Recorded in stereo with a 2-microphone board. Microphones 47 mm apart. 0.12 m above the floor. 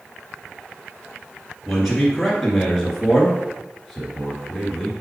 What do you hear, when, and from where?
1.7 s a man speaking: centre (ahead or behind), 2 m